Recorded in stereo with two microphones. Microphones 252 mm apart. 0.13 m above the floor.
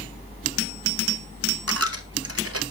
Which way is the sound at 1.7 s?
65° right (ahead or behind).